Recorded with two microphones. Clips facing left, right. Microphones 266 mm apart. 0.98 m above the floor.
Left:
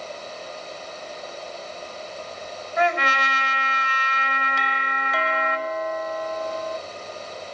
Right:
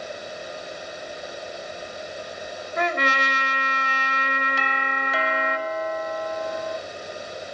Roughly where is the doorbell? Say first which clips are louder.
Right 2 dB; centre.